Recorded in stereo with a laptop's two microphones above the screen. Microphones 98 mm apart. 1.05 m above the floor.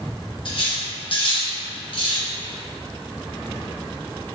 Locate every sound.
0.5 s cutlery clinking: 55° left (ahead or behind), 0.8 m